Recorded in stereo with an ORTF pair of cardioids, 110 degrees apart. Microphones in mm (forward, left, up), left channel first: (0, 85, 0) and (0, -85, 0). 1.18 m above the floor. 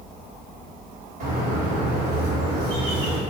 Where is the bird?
65° right, 1.0 m.